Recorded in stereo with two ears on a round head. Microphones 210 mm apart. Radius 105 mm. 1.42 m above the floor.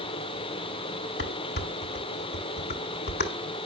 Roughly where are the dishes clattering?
Left.